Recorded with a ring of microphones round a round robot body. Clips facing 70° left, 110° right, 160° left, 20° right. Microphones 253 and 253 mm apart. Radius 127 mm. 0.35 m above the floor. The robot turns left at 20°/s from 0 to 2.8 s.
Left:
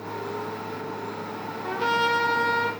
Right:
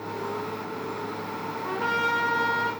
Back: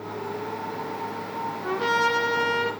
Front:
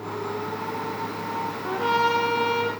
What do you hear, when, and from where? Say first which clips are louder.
1.6 s a trumpet: left 4 dB, even; 105° left, 3 m; by 2.7 s 85° left, 3 m